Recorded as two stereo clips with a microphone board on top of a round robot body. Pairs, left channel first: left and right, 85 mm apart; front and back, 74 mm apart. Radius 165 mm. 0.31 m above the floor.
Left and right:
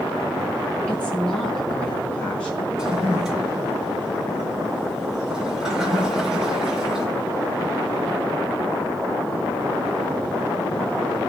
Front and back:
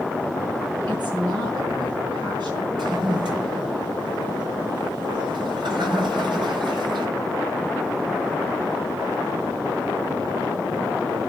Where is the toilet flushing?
175° right, 4.5 m.